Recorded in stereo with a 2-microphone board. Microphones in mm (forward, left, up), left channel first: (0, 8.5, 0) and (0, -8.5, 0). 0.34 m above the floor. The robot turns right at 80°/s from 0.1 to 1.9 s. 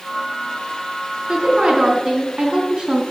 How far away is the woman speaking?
About 3.5 m.